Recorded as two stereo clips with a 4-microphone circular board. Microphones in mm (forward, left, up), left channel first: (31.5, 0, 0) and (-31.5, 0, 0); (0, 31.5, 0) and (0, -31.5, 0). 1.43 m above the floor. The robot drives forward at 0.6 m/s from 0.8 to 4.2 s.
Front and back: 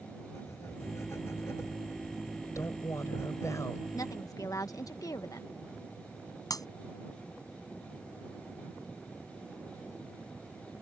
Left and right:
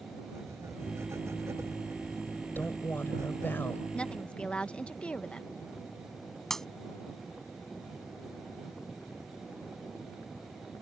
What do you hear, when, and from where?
0.3 s writing: 45° right; by 3.5 s 50° right
2.5 s a woman speaking: 35° left; by 3.8 s 40° left
3.9 s a woman speaking: 20° left
6.5 s breaking glass: 10° left